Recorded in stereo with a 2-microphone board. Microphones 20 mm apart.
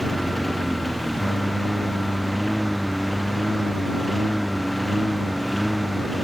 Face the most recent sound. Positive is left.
turn(degrees=-5)  # may be behind; listen again after turning